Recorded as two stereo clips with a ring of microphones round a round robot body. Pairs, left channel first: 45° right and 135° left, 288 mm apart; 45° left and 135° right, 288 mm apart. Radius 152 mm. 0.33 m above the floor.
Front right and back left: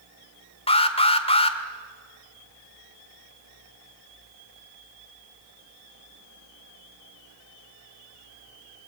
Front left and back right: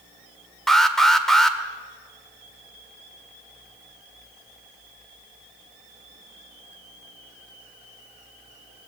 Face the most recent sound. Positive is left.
turn(degrees=-40)